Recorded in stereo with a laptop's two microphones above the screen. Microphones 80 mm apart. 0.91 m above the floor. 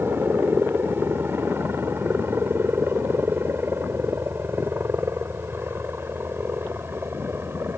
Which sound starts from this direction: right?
A helicopter, at 0.0 s.